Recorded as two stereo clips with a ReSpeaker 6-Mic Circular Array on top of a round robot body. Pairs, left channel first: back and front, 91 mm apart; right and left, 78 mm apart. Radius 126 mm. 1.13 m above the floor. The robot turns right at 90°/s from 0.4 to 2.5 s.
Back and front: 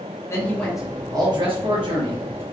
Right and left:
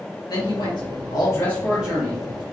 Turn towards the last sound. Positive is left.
turn(degrees=70)